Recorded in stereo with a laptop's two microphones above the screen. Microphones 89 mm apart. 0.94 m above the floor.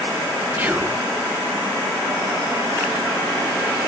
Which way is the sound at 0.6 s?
20° right (ahead or behind).